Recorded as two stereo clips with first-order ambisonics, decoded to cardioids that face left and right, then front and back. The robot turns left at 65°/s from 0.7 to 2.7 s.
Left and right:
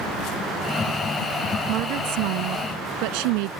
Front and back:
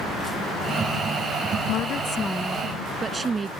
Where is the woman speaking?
40° right; by 3.5 s 105° right.